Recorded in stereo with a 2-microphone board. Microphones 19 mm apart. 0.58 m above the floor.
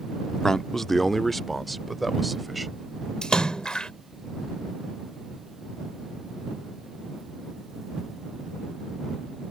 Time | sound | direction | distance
0.4 | a man speaking | 30° left (ahead or behind) | ?
3.2 | a splash | 55° left (ahead or behind) | ?